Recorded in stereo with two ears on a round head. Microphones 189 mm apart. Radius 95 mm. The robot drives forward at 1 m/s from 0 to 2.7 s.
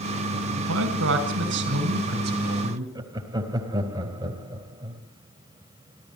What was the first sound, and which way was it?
A man speaking, 70° right (ahead or behind).